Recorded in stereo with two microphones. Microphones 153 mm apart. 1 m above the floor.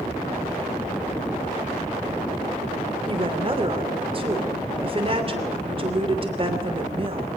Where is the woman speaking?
35° right (ahead or behind), 3 m.